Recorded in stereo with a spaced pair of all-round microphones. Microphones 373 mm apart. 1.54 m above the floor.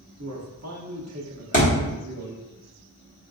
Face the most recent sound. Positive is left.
turn(degrees=20)  # may be behind; listen again after turning